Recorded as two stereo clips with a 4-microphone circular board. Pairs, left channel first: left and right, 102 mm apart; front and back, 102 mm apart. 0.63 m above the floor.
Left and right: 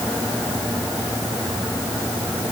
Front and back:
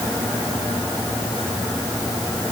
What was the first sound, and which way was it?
Only background noise.